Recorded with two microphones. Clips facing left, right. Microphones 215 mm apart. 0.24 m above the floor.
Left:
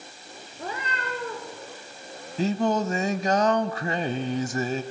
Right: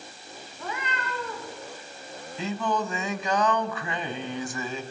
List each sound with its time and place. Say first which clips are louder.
0.5 s a cat meowing: left 1 dB; 35° left (ahead or behind), 7 m; by 1.6 s 40° left (ahead or behind), 8 m
2.4 s singing: left 5 dB; 40° left (ahead or behind), 0.9 m